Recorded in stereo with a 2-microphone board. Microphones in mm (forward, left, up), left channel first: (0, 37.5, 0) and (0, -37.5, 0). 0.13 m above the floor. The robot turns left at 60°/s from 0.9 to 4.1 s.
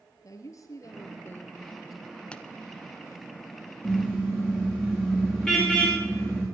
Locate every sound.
0.2 s a woman speaking: 55° left, 3 m; by 2.2 s 20° right, 3 m
2.3 s a pop: 15° left (ahead or behind), 1.0 m; by 2.5 s 10° left (ahead or behind), 1.0 m
3.8 s a car horn: 25° left (ahead or behind), 8.5 m; by 6.5 s 10° left (ahead or behind), 8.5 m